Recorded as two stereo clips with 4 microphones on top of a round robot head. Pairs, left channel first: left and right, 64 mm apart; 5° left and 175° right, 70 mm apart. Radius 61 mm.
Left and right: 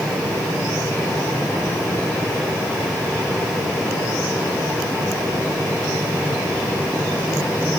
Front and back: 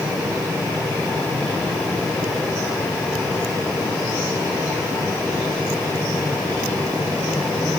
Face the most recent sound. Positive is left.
No sound to turn to.